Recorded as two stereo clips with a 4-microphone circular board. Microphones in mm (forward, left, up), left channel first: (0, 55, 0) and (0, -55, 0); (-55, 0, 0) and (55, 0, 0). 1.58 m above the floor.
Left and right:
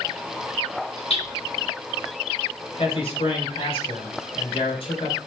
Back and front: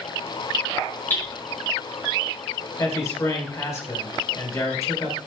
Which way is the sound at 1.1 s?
110° left.